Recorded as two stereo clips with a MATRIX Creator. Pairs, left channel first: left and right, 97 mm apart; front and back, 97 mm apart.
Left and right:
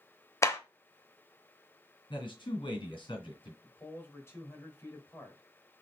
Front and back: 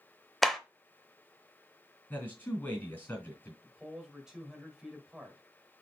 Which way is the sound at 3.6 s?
105° left.